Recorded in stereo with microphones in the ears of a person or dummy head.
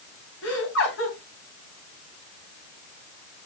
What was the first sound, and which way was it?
Laughter, 80° left.